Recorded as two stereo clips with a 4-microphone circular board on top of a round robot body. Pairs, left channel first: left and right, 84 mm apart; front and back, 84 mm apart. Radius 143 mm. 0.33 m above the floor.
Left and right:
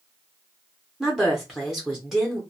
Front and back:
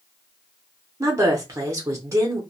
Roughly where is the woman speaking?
Behind.